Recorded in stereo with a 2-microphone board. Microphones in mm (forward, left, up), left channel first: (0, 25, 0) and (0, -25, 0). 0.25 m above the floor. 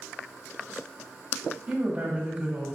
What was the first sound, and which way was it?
A woman speaking, 25° right (ahead or behind).